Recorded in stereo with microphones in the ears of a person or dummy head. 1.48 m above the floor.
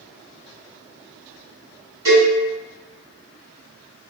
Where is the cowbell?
20° right (ahead or behind), 1.4 m.